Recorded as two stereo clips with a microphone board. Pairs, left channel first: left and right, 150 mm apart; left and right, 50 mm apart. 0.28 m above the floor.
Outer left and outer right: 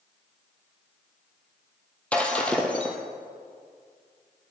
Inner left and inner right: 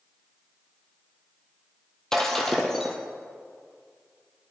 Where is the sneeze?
No sneeze in this recording.